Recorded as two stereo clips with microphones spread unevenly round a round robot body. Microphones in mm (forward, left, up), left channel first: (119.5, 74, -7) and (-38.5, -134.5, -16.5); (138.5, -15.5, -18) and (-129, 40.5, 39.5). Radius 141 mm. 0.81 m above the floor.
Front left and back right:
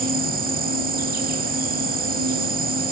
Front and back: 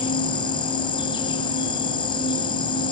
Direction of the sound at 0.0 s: 90° right.